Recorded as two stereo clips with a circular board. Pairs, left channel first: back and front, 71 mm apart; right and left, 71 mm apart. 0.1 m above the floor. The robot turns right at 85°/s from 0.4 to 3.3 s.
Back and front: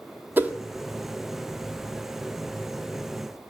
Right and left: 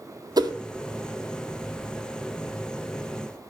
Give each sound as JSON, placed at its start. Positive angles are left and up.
{"t": 0.4, "sound": "a whoosh", "azimuth_deg": 65, "distance_m": 0.6}